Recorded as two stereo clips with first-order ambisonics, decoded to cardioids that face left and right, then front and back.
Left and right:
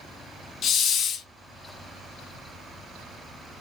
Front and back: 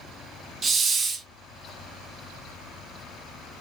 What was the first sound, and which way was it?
A hiss, 125° left.